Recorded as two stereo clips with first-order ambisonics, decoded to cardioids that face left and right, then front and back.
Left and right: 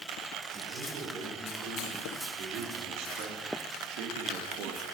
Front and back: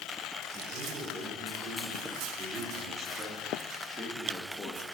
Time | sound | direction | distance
0.5 | a man speaking | 135° right | 4 m